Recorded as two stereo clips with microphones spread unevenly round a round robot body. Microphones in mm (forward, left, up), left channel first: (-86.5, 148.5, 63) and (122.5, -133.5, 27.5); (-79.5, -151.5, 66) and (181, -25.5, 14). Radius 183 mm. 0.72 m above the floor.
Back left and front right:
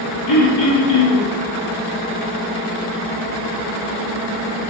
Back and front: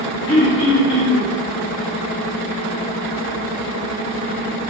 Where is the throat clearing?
125° left, 1.0 m.